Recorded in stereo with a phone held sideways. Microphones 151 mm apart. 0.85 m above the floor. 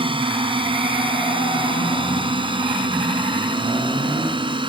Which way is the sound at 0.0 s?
35° right (ahead or behind).